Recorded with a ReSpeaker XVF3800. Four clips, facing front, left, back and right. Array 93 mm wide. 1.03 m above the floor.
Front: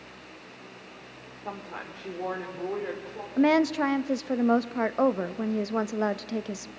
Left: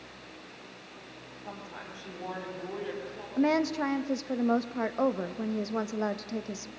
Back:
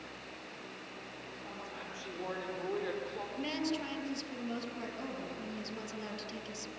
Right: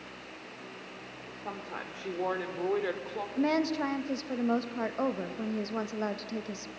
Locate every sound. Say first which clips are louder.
1.4 s a woman speaking: right 4 dB, front 9 dB; 40° right, 3.5 m; by 3.3 s 80° right, 4 m
3.4 s a woman speaking: left 2 dB, front 15 dB; 5° left, 1.2 m